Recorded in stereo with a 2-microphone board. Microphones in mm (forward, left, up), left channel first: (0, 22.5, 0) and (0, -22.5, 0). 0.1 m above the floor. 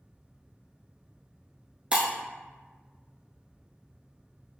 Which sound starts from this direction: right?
Breaking glass, at 1.9 s.